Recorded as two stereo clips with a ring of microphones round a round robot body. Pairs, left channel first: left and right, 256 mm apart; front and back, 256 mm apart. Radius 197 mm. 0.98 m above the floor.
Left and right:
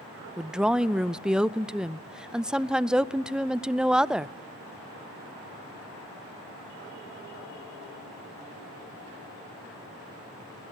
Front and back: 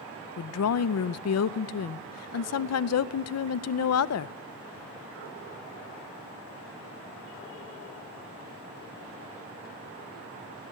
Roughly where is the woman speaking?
Ahead.